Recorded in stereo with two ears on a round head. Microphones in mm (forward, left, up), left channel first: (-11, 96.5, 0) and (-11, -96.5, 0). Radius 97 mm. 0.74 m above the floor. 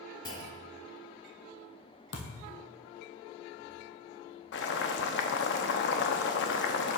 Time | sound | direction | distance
0.2 | a clunk | 20° left (ahead or behind) | 1.4 m
2.1 | a thud | 55° left (ahead or behind) | 1.4 m
4.5 | boiling | 55° left (ahead or behind) | 0.7 m